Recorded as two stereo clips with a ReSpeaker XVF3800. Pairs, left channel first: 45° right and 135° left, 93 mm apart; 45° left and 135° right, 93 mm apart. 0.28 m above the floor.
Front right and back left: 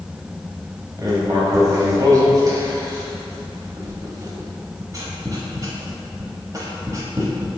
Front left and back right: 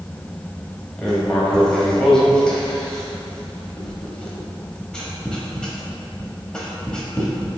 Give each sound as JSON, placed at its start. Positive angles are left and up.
{"t": 1.0, "sound": "writing", "azimuth_deg": 120, "distance_m": 0.8}